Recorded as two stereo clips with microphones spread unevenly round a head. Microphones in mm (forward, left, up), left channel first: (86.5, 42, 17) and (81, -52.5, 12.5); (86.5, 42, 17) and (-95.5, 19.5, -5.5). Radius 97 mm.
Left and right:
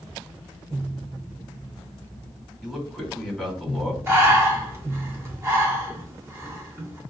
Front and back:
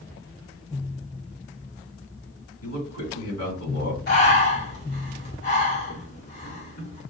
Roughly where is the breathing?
Ahead right.